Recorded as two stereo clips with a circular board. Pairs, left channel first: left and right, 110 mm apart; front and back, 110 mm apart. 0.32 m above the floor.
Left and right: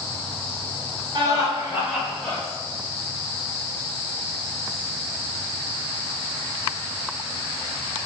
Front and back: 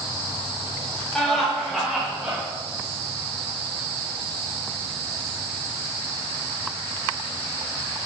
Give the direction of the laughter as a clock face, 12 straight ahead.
3 o'clock.